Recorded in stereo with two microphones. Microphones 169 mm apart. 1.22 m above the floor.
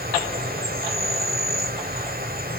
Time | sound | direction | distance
0.0 | an insect | 65° right (ahead or behind) | 1.8 m